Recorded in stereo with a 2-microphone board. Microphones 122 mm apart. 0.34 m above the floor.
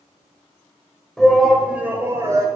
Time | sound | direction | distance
1.2 | a shout | 5° left (ahead or behind) | 1.5 m